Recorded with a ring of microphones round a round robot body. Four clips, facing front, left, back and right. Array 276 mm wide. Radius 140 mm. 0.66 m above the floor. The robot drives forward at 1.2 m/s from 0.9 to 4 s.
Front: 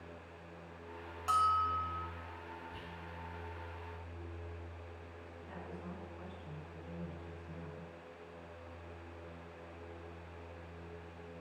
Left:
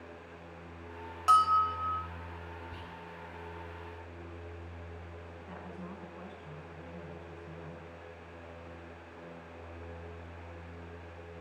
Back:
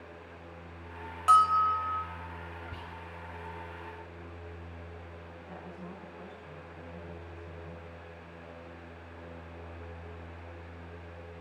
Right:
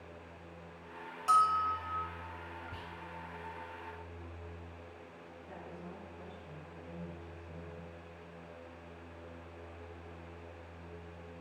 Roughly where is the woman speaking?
Left.